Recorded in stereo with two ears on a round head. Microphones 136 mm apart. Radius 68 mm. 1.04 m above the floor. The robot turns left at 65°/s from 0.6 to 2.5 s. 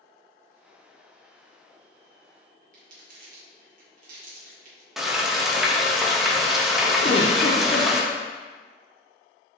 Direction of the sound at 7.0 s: 35° left (ahead or behind).